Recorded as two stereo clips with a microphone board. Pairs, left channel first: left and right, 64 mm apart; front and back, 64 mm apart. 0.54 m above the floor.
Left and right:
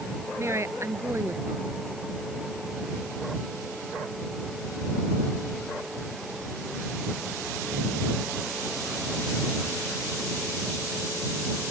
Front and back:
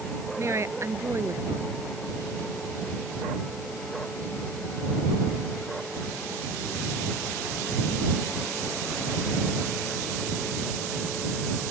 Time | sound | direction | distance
0.4 | a woman speaking | 135° right | ?